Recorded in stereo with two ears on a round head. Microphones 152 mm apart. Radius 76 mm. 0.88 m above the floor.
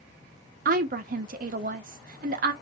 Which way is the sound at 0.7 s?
50° right (ahead or behind).